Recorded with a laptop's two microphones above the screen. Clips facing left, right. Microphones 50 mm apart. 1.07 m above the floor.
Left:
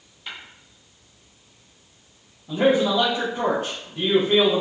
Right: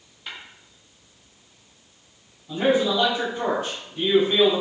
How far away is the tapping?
About 1.7 m.